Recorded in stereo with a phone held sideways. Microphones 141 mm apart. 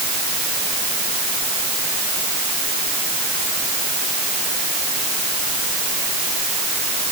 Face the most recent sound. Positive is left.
No sound to turn to.